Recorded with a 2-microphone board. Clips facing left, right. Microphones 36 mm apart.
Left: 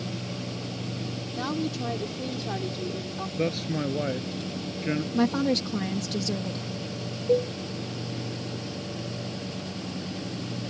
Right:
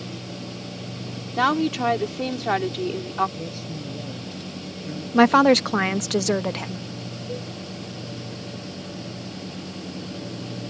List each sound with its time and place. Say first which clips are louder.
1.4 s a woman speaking: right 10 dB; 70° right (ahead or behind)
3.4 s a man speaking: left 6 dB; 55° left (ahead or behind)
5.1 s a woman speaking: right 11 dB; 70° right (ahead or behind)
7.3 s a cowbell: left 12 dB; 70° left (ahead or behind)